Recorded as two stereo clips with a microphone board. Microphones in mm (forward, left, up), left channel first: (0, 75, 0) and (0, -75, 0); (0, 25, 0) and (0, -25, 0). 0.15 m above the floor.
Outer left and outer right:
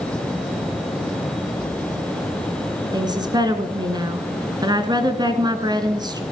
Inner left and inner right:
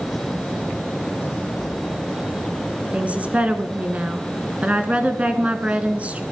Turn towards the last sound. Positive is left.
turn(degrees=-30)  # may be behind; listen again after turning